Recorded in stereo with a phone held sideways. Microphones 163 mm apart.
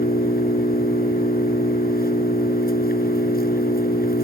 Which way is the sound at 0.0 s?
70° left (ahead or behind).